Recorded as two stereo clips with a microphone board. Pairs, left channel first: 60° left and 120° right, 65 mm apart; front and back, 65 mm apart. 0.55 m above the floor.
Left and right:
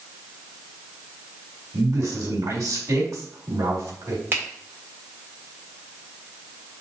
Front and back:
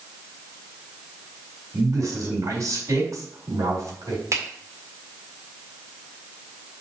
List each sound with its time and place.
1.7 s a man speaking: 145° right, 3.5 m
4.3 s a finger snap: 165° right, 1.8 m